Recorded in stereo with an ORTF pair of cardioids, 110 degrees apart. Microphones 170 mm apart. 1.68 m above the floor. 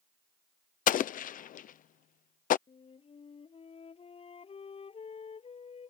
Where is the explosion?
50° left.